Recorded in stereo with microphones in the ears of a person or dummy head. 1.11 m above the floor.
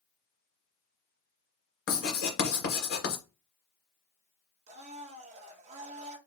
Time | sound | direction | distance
1.9 | writing | 65° left (ahead or behind) | 2 m
4.7 | a blender | 40° right (ahead or behind) | 1.4 m